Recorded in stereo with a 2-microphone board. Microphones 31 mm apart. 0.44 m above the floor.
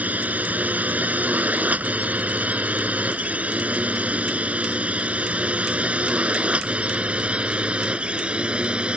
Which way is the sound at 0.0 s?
60° right (ahead or behind).